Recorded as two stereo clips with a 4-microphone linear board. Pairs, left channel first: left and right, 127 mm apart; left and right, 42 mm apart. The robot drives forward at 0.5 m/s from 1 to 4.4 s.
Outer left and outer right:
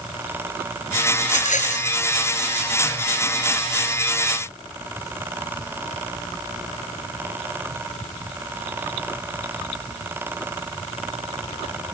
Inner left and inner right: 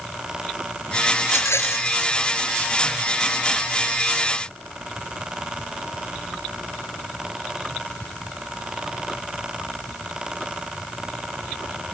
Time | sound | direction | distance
1.2 | a rattle | 75° left (ahead or behind) | ?